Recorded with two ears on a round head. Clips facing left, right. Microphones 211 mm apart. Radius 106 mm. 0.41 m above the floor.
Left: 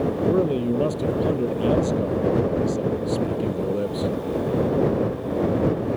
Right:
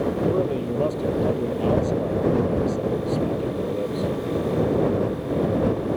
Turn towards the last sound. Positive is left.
turn(degrees=20)  # may be behind; listen again after turning